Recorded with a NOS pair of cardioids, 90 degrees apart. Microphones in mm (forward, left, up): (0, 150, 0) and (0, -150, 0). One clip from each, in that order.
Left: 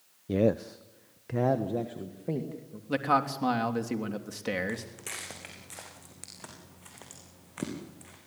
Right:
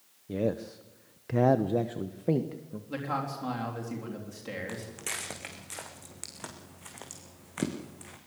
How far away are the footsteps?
About 5.5 m.